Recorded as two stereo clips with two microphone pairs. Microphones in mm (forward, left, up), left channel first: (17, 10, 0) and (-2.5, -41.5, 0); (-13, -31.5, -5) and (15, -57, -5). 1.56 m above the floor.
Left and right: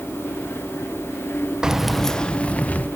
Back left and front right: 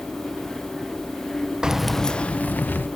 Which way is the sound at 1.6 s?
55° right.